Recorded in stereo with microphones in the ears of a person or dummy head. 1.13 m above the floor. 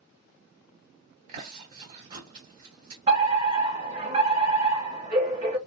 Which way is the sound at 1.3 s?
45° right (ahead or behind).